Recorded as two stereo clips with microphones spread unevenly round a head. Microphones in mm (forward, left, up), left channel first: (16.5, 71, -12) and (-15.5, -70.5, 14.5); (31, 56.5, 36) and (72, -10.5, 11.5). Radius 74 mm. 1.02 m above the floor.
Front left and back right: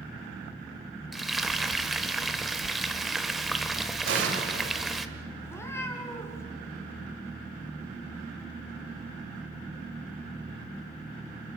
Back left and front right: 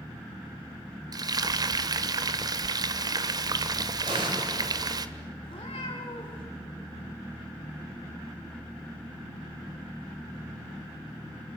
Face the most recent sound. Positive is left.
turn(degrees=155)